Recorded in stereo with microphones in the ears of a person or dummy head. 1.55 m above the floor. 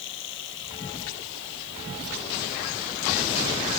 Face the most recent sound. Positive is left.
turn(degrees=70)  # may be behind; listen again after turning